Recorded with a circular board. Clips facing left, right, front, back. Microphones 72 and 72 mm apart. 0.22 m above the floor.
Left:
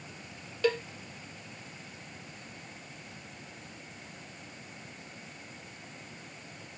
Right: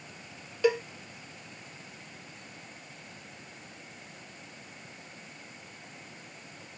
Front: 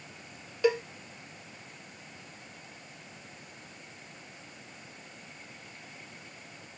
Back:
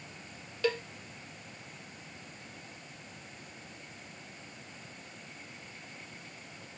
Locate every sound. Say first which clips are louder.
0.6 s a cowbell: right 3 dB, front 5 dB; 40° right